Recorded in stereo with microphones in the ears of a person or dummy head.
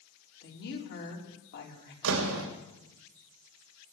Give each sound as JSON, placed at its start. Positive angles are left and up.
{"t": 0.4, "sound": "a woman speaking", "side_deg": 60, "distance_m": 3.0}
{"t": 2.0, "sound": "a door slam", "side_deg": -70, "distance_m": 2.5}